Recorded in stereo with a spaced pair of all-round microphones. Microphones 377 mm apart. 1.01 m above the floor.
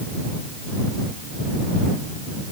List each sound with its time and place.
Only background noise.